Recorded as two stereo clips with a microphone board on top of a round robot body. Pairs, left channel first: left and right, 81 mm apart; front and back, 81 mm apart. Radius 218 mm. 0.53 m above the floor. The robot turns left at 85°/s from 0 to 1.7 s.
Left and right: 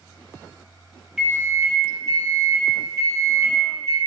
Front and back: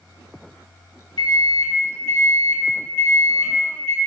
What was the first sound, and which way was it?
A microwave, 10° right.